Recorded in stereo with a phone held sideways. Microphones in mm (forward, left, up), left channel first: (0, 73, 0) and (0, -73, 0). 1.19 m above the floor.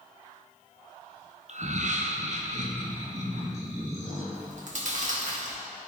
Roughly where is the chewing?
Right.